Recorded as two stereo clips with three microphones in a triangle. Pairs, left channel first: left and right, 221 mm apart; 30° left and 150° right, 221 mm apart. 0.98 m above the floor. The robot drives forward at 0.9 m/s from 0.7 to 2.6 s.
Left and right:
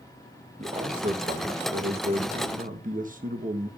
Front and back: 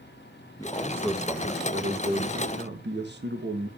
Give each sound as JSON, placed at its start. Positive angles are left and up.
{"t": 0.6, "sound": "a man speaking", "azimuth_deg": -40, "distance_m": 1.5}